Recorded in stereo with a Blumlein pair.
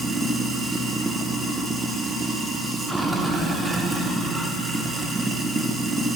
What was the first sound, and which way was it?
Running water, 5° right.